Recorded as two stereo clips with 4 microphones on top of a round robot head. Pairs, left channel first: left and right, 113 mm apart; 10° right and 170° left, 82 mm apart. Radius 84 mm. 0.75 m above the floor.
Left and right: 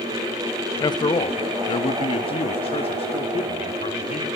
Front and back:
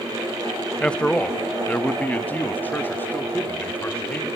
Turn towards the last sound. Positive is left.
turn(degrees=55)